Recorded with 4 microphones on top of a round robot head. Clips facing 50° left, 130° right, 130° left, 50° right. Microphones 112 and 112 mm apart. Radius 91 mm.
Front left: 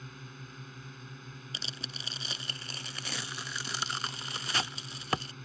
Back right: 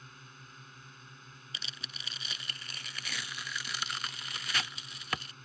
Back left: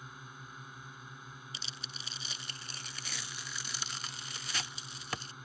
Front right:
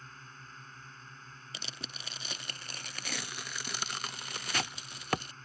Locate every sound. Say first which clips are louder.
0.0 s a drone: front left 6 dB, back left 2 dB; 50° left
1.5 s tearing paper: front left 3 dB, front right 2 dB; 10° right